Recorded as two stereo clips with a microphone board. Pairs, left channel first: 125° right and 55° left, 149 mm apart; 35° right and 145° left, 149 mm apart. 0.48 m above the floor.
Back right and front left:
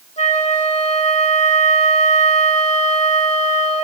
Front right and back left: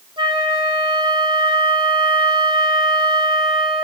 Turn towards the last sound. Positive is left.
turn(degrees=-160)